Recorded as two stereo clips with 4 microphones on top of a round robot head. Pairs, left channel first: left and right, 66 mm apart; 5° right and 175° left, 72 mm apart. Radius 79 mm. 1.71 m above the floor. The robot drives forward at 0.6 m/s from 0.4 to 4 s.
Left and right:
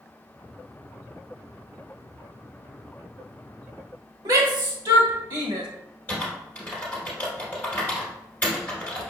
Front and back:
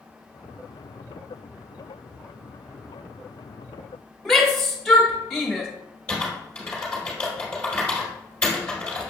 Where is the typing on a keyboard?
45° left, 1.4 m.